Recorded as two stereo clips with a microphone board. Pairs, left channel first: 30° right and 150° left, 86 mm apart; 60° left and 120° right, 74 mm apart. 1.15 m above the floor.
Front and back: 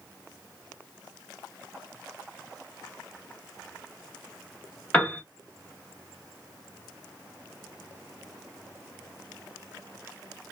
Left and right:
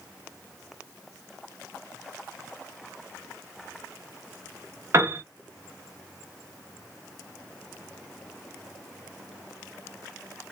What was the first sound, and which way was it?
A piano, 95° right.